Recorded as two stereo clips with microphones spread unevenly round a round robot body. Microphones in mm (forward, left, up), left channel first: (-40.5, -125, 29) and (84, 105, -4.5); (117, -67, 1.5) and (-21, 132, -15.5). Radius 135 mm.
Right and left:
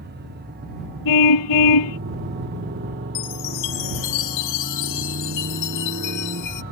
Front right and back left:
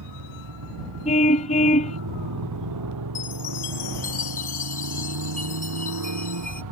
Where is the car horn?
125° right.